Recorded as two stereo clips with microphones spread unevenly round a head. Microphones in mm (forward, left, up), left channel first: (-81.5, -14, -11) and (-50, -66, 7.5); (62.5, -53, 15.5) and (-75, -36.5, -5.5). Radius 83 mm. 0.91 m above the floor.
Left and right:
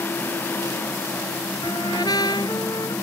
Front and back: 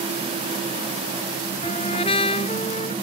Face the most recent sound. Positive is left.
turn(degrees=55)